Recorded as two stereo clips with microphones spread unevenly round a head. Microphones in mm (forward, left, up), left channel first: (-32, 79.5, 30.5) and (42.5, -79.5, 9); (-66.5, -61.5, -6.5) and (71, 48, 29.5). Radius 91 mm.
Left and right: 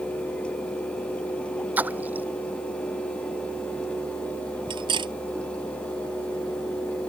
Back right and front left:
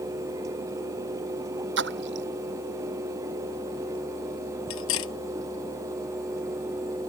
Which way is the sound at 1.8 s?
15° left.